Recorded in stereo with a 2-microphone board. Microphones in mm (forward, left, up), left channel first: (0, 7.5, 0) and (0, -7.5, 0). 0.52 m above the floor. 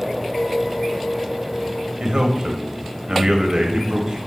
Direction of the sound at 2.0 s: 65° right (ahead or behind).